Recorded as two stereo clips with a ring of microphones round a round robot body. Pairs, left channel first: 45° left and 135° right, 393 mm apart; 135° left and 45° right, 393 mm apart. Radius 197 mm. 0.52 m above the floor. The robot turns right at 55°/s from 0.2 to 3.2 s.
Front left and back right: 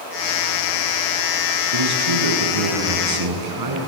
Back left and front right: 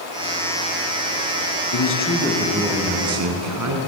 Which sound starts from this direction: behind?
A man speaking, at 1.7 s.